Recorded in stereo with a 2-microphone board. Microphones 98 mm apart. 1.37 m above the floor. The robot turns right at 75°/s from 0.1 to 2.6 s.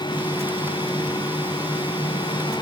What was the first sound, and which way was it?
Only background noise.